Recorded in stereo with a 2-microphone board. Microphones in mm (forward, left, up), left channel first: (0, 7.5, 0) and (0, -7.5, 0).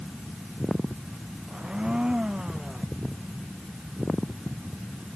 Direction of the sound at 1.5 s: 75° right (ahead or behind).